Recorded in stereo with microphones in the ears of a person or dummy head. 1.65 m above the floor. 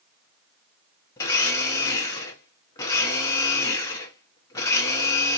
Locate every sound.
1.2 s a blender: 20° left (ahead or behind), 0.8 m